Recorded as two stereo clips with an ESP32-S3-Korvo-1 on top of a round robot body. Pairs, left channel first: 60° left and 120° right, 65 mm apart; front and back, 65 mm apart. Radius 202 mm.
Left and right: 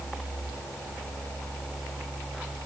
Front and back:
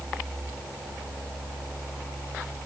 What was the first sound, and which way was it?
Only background noise.